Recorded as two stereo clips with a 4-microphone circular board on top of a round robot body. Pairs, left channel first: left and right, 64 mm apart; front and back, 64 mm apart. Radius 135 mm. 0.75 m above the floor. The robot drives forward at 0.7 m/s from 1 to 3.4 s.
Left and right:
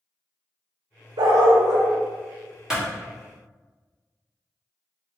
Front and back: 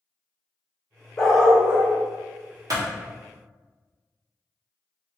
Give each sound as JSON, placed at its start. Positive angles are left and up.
{"t": 1.2, "sound": "a dog barking", "azimuth_deg": -75, "distance_m": 0.5}
{"t": 2.7, "sound": "a clap", "azimuth_deg": -170, "distance_m": 1.7}